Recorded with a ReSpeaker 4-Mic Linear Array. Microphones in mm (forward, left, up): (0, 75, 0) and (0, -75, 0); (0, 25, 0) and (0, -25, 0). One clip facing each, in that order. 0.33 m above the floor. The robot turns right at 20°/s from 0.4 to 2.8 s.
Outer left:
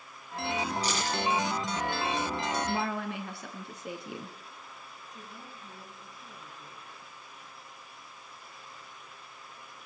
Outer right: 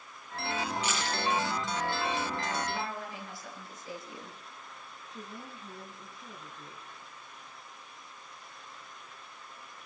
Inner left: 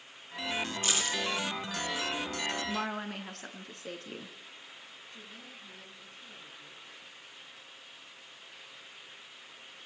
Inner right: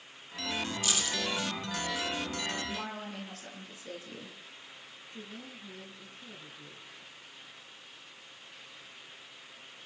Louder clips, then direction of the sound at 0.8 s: Outer left 2 dB, inner left 2 dB; 40° left (ahead or behind).